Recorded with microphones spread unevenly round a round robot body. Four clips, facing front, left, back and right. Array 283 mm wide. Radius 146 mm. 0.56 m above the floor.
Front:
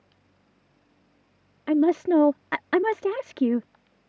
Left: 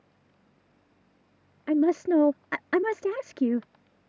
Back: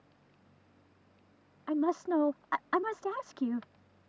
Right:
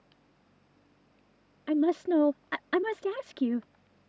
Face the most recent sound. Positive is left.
turn(degrees=15)